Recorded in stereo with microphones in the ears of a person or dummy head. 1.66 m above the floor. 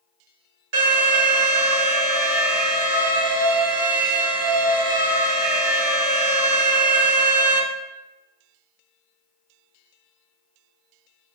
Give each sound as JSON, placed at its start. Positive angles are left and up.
{"t": 0.7, "sound": "an alarm", "side_deg": -70, "distance_m": 1.9}